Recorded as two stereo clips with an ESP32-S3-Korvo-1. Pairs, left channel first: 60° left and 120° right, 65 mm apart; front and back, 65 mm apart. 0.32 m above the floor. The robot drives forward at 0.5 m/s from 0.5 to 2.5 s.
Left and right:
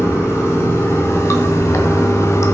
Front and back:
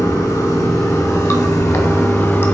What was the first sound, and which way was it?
Running water, 15° left.